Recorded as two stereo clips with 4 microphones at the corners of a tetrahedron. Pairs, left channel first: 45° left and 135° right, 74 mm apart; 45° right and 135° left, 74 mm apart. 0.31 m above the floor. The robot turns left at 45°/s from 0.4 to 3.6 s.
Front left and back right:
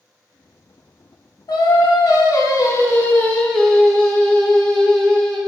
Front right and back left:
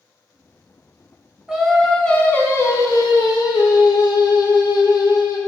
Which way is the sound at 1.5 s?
60° left.